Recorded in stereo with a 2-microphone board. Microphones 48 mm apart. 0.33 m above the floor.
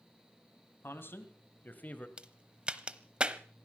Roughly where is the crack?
Right.